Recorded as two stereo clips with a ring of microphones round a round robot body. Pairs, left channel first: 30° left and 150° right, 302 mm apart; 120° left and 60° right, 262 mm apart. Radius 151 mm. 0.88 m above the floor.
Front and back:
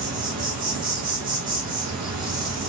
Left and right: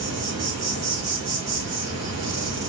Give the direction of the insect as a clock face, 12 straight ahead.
4 o'clock.